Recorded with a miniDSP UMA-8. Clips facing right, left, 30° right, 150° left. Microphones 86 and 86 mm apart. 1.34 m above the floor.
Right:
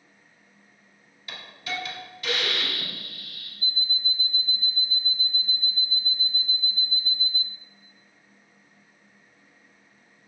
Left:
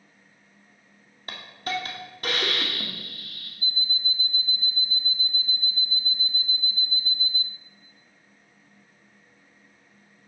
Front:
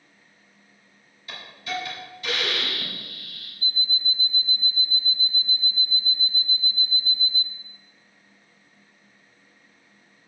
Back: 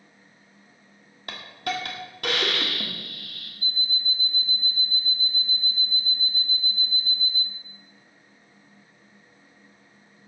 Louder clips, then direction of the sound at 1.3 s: Left 4 dB, back 3 dB; 130° left.